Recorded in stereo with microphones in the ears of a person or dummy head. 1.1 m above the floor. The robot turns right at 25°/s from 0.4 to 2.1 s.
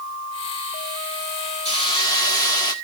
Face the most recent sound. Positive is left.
turn(degrees=25)  # may be behind; listen again after turning